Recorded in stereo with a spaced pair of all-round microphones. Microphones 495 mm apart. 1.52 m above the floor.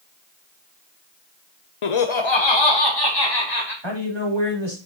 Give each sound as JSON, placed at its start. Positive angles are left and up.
{"t": 1.8, "sound": "laughter", "side_deg": 80, "distance_m": 0.6}
{"t": 3.8, "sound": "a man speaking", "side_deg": -60, "distance_m": 4.0}